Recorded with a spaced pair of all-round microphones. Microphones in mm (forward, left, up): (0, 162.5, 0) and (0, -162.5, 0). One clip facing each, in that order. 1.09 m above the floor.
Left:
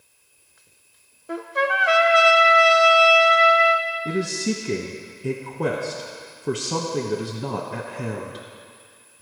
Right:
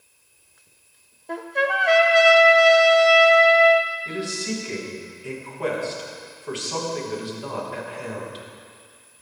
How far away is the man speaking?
About 1.0 m.